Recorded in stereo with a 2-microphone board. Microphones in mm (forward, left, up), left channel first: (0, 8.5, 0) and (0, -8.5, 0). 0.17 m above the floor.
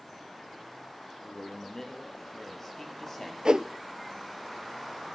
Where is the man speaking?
30° left (ahead or behind), 4 m; by 3.4 s 15° left (ahead or behind), 4.5 m.